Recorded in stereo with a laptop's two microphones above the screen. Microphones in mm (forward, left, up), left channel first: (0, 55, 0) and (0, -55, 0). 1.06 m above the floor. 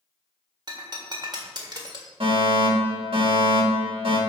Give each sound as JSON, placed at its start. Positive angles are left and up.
{"t": 0.7, "sound": "breaking glass", "side_deg": -40, "distance_m": 1.4}
{"t": 2.2, "sound": "a fire alarm", "side_deg": -50, "distance_m": 3.0}